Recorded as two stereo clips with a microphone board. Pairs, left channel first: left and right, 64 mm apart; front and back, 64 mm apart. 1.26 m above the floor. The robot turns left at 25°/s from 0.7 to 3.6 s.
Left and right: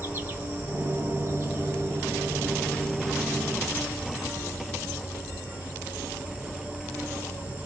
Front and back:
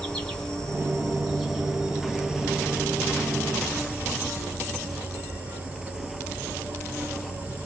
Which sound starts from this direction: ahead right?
An insect, at 0.0 s.